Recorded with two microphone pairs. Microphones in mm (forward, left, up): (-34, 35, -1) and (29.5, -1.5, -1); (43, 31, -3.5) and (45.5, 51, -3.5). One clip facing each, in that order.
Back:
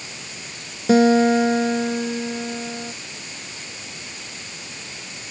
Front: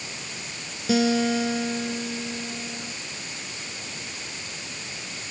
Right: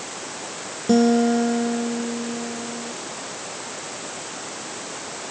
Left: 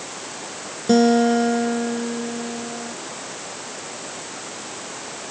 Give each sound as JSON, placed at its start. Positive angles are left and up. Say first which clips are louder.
{"t": 0.9, "sound": "a guitar", "louder": "back 7 dB, left 2 dB", "azimuth_deg": 135}